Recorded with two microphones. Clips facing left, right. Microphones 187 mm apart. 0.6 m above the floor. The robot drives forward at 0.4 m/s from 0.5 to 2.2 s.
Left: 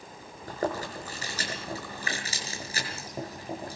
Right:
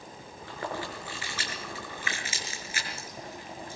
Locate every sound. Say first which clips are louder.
0.5 s chewing: left 5 dB; 45° left (ahead or behind), 6 m; by 3.8 s 40° left (ahead or behind), 6.5 m